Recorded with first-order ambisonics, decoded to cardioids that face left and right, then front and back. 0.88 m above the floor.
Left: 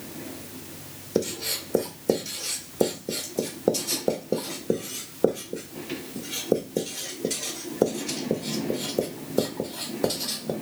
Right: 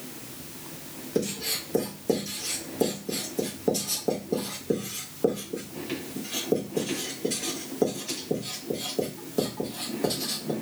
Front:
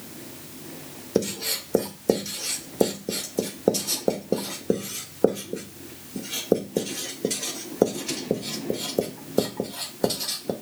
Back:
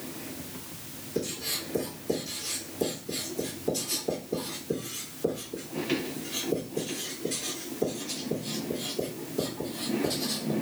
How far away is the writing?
About 1.1 m.